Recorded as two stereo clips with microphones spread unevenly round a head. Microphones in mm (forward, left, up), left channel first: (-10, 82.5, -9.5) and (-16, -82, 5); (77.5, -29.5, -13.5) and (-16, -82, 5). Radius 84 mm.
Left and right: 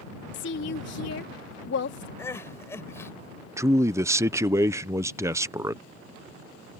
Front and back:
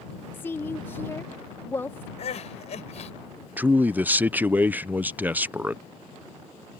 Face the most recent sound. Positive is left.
turn(degrees=-130)